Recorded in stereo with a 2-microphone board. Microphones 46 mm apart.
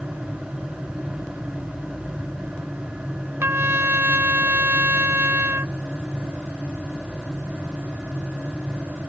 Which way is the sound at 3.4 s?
70° right (ahead or behind).